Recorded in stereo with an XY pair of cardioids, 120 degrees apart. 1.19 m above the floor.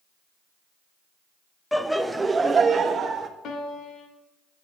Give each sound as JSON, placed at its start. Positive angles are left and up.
{"t": 1.7, "sound": "laughter", "azimuth_deg": 5, "distance_m": 0.7}
{"t": 3.4, "sound": "a piano", "azimuth_deg": 65, "distance_m": 1.8}